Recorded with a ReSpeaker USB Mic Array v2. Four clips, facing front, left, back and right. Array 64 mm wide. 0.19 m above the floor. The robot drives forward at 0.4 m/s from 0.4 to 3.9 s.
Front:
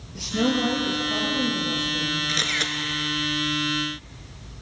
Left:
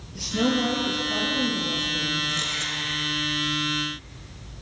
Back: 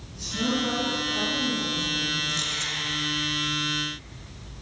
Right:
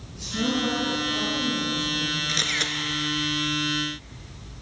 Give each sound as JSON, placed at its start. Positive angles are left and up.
{"t": 0.1, "sound": "a woman speaking", "azimuth_deg": 35, "distance_m": 4.5}
{"t": 2.3, "sound": "a camera shutter", "azimuth_deg": -30, "distance_m": 1.5}